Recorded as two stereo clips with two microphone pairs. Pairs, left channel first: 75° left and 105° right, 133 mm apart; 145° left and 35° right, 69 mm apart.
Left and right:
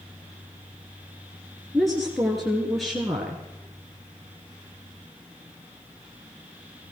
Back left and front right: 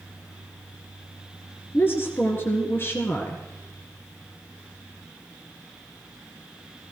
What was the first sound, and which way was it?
A woman speaking, 165° left.